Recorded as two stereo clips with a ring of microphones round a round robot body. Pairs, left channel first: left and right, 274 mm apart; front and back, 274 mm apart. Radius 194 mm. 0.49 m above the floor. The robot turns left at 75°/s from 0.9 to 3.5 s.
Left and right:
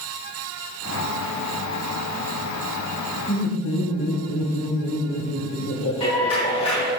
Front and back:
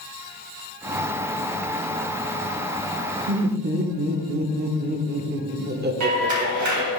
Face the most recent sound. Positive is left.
turn(degrees=165)